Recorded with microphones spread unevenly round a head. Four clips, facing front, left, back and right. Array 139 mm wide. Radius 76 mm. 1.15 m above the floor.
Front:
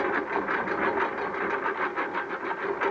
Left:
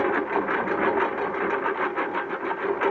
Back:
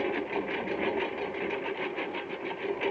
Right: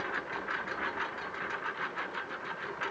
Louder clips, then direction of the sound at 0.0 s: Left 13 dB, front 3 dB; 85° left.